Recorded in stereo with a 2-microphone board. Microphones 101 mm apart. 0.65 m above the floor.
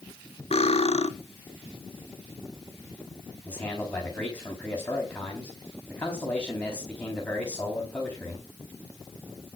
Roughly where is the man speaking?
Centre.